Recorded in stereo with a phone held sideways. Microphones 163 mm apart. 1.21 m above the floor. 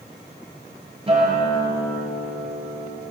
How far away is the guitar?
About 8 m.